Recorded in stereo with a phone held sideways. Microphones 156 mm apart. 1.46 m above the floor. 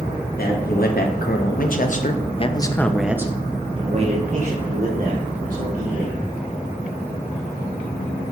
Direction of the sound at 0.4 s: 75° left (ahead or behind).